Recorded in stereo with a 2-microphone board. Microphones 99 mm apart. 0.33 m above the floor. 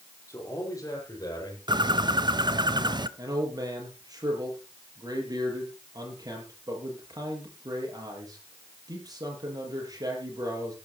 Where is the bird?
45° right (ahead or behind), 0.7 m.